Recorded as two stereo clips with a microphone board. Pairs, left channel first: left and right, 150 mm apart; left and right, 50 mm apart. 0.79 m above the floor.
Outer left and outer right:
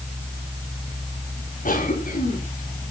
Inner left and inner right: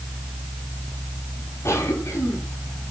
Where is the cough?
65° left (ahead or behind), 6.5 m.